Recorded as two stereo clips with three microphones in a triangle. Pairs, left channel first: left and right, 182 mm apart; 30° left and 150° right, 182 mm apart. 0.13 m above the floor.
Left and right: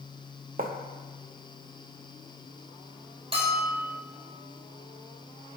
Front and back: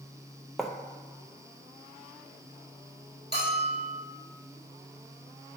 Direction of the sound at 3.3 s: 145° right.